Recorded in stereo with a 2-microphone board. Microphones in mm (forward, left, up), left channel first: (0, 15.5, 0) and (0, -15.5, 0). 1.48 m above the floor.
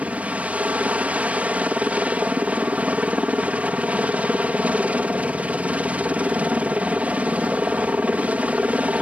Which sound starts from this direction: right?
A helicopter, at 0.0 s.